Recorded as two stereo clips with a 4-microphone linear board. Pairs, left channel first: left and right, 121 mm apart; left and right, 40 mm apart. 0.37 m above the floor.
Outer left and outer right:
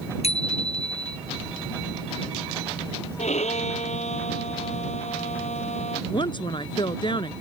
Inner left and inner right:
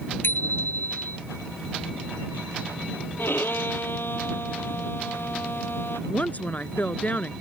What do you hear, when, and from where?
0.2 s a bicycle bell: 65° left (ahead or behind)
3.2 s a violin: 85° left
6.1 s a woman speaking: 45° left (ahead or behind)